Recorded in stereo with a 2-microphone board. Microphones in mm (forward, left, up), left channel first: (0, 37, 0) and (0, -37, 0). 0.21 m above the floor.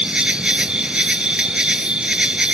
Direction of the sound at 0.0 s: 15° right (ahead or behind).